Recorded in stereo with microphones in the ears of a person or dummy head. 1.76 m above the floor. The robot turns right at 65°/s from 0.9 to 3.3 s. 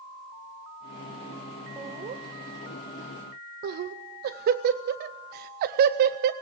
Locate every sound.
1.8 s laughter: 10° right (ahead or behind), 0.6 m; by 6.3 s 45° right (ahead or behind), 0.6 m